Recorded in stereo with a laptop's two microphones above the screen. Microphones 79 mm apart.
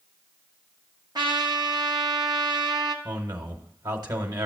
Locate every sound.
1.1 s a trumpet: 65° right (ahead or behind), 1.0 m
3.0 s a man speaking: 55° right (ahead or behind), 1.2 m